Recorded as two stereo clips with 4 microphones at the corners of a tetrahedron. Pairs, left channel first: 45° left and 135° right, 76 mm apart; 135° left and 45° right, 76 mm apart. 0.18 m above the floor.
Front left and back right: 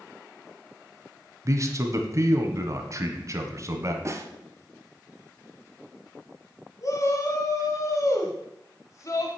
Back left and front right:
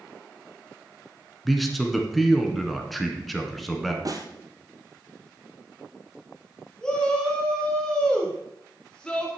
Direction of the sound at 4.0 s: 85° right.